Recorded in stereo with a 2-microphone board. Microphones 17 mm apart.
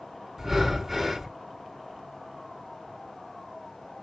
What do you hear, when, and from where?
0.4 s breathing: 15° right (ahead or behind), 1.7 m